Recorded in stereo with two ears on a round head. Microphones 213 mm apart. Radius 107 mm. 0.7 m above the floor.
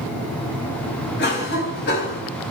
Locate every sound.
1.2 s a cough: 45° left (ahead or behind), 4 m